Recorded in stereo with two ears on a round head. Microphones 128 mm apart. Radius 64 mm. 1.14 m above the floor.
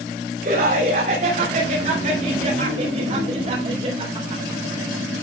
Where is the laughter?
60° right (ahead or behind), 5.5 m; by 4.6 s 40° right (ahead or behind), 4 m.